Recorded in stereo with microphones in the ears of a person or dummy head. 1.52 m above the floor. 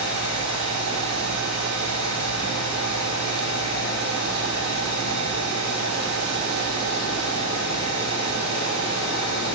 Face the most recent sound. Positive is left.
turn(degrees=-65)  # may be behind; listen again after turning